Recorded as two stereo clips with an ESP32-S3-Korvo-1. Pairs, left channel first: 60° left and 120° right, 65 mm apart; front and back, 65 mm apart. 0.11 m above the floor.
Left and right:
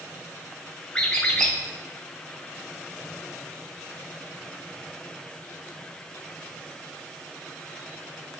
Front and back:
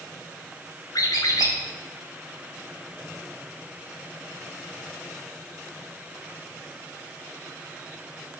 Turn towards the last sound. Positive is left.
turn(degrees=-10)